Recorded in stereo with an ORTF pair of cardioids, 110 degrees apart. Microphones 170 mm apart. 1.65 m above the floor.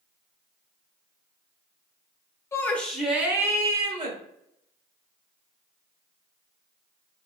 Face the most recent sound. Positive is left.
turn(degrees=-30)